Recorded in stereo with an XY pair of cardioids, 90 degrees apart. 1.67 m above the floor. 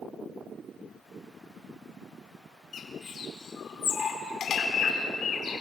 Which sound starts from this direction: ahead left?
A bird, at 2.7 s.